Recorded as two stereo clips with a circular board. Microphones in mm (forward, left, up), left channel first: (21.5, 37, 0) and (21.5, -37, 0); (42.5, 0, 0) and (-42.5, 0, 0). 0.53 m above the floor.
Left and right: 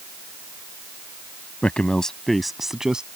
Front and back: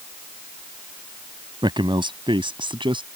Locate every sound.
1.6 s a man speaking: 160° left; by 3.0 s 170° right